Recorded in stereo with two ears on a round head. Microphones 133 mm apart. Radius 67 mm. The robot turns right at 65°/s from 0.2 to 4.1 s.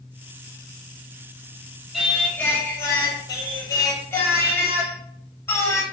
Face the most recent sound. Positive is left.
turn(degrees=15)  # may be behind; listen again after turning